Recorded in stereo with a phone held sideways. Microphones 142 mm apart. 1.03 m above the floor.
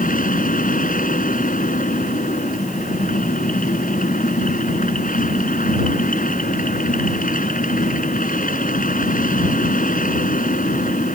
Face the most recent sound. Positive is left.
turn(degrees=75)  # may be behind; listen again after turning